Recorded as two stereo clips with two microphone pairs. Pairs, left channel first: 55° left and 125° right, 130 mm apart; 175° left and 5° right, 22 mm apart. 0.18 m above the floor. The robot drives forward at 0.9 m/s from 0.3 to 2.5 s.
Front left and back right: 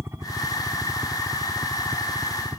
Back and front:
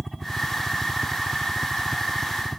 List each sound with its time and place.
0.0 s a helicopter: 90° right; by 2.6 s 105° right